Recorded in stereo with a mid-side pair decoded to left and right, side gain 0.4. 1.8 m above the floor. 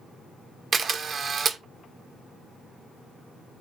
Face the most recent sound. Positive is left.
turn(degrees=-55)